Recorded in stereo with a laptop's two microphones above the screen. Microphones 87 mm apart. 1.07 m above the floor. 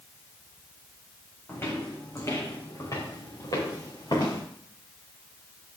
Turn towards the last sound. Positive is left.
turn(degrees=50)  # may be behind; listen again after turning